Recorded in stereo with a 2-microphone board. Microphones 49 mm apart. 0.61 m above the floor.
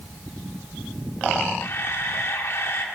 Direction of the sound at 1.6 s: 55° left (ahead or behind).